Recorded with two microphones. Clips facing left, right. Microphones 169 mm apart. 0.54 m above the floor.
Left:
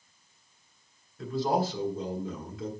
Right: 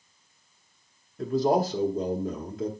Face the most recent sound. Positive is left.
turn(degrees=-40)  # may be behind; listen again after turning